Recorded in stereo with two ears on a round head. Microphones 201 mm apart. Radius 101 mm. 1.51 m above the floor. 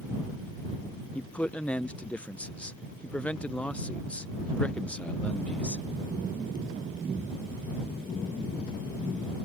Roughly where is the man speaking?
Centre.